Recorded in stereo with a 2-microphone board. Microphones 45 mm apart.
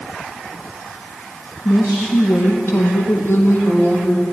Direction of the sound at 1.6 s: 45° left (ahead or behind).